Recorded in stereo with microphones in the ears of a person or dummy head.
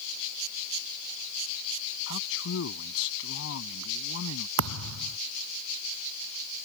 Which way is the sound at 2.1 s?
75° left (ahead or behind).